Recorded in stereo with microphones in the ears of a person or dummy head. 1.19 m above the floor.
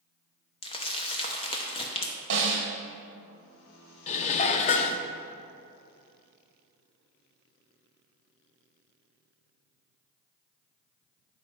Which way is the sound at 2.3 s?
60° right (ahead or behind).